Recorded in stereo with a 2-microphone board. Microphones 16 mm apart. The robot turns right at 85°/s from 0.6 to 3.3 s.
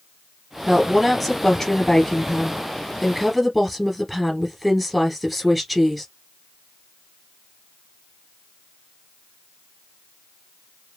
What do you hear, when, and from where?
0.7 s a woman speaking: 40° right, 1.6 m; by 6.0 s 175° right, 1.6 m